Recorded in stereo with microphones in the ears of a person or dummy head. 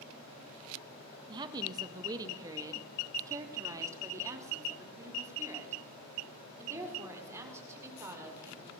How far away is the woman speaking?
About 1.4 m.